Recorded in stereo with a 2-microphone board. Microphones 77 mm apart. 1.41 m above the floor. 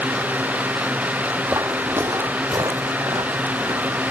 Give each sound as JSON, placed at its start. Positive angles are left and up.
{"t": 1.5, "sound": "footsteps", "side_deg": -25, "distance_m": 2.0}